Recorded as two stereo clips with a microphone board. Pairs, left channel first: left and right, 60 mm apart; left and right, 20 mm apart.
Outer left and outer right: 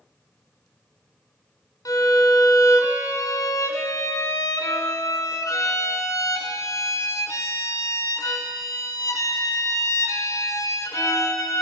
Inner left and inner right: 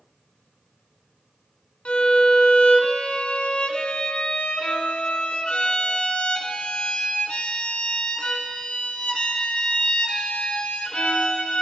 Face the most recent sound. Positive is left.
turn(degrees=75)  # may be behind; listen again after turning